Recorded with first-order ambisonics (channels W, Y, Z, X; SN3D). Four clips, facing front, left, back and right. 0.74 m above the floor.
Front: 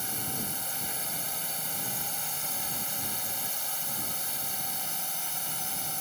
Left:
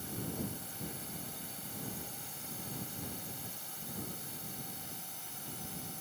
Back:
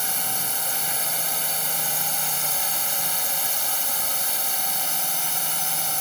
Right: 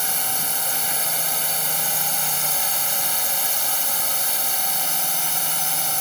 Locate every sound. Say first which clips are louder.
0.0 s a drone: right 14 dB, back 7 dB; 115° right